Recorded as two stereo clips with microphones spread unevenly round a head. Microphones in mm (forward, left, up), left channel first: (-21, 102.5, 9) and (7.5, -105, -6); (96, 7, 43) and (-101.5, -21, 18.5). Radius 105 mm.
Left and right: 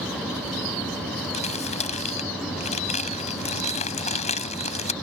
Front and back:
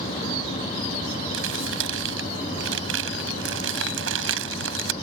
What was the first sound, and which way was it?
Crumpling, 160° left.